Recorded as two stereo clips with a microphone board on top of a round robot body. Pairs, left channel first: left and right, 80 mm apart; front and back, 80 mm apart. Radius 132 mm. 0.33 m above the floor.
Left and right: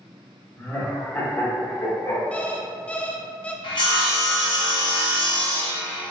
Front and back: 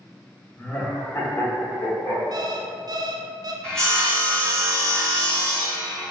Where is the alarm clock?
165° left, 0.6 m.